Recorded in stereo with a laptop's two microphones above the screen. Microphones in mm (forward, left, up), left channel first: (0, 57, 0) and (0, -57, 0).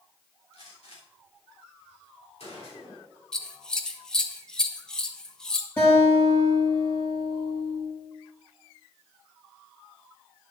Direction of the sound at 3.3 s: 5° left (ahead or behind).